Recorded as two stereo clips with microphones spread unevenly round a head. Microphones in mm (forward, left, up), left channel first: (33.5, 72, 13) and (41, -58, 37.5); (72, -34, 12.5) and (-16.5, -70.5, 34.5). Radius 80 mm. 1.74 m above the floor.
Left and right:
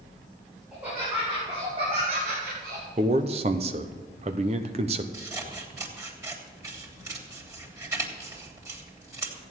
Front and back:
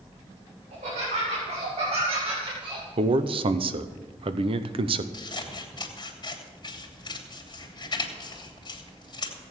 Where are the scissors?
20° right, 3 m.